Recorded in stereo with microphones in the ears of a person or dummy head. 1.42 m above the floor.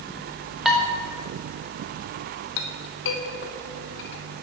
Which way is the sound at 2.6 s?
60° left (ahead or behind).